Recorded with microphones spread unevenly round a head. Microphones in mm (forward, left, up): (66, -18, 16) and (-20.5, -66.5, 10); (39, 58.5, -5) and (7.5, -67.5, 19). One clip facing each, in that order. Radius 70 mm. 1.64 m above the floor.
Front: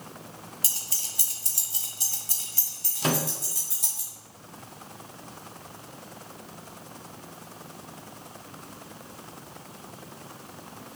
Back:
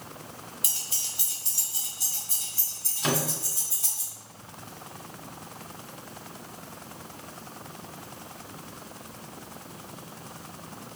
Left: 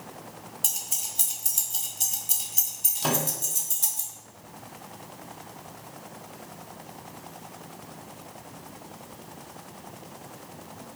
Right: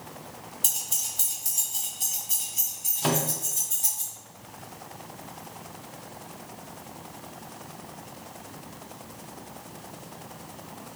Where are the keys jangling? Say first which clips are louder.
Even, even; 15° right, 0.9 m; by 4.0 s 75° left, 1.7 m.